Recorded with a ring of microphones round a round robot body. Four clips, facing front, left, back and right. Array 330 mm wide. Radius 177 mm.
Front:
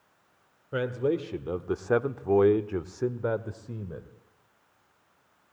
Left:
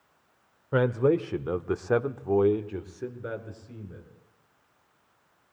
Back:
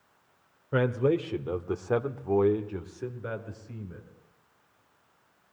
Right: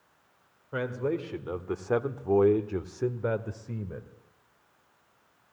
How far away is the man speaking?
About 1.5 m.